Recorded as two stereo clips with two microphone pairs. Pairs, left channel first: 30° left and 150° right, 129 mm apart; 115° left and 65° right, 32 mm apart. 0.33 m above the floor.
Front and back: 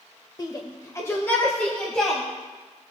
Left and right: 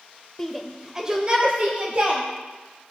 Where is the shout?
50° left, 1.0 m; by 2.2 s 55° right, 1.8 m.